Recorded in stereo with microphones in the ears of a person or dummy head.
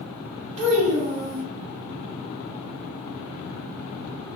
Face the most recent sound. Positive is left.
turn(degrees=-30)  # may be behind; listen again after turning